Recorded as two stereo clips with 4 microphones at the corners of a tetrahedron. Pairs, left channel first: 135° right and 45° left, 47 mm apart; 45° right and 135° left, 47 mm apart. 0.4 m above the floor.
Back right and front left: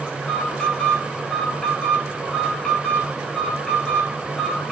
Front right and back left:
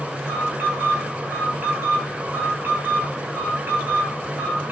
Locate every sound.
0.2 s an alarm: 145° left, 3.5 m